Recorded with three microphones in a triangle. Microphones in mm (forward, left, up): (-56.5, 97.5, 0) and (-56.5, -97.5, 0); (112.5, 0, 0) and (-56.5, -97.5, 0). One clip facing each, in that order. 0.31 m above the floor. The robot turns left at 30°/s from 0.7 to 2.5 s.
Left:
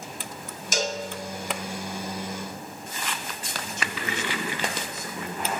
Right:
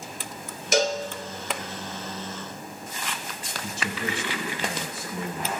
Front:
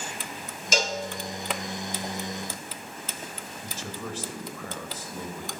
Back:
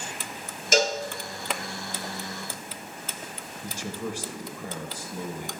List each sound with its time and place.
0.7 s a cowbell: 115° right, 0.8 m; by 1.0 s 120° right, 0.8 m
3.6 s a man speaking: 85° right, 1.1 m